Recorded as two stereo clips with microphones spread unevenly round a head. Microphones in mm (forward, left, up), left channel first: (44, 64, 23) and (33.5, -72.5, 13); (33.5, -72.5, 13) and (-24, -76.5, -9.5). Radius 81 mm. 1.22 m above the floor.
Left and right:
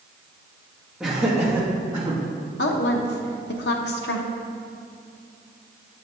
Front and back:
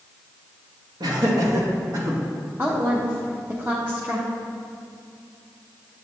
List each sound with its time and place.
1.0 s laughter: straight behind, 1.3 m; by 2.2 s 160° right, 2 m
2.6 s a woman speaking: 105° left, 0.7 m